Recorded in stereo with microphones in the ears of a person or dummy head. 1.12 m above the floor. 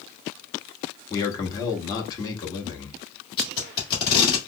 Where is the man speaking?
20° left (ahead or behind), 1.2 m.